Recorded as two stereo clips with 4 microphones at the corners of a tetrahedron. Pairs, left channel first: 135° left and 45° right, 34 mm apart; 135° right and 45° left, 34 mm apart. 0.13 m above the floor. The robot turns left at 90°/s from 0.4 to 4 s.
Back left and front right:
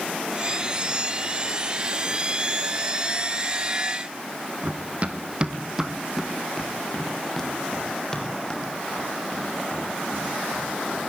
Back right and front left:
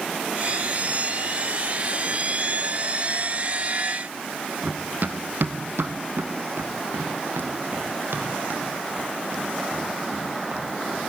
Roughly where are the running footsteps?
Ahead.